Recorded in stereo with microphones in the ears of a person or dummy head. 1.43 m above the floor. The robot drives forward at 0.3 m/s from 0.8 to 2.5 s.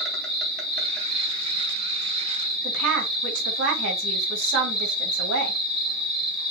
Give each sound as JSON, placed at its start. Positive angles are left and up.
{"t": 0.0, "sound": "an insect", "side_deg": 0, "distance_m": 3.5}
{"t": 2.6, "sound": "a woman speaking", "side_deg": -85, "distance_m": 3.5}